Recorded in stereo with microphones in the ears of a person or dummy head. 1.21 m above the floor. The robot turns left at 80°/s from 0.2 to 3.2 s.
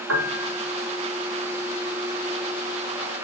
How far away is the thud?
I don't hear a thud.